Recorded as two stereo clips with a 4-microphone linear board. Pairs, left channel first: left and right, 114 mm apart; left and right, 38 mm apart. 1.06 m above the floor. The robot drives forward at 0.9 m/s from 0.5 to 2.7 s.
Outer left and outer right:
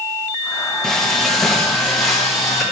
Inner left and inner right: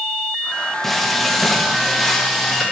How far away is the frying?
About 1.0 m.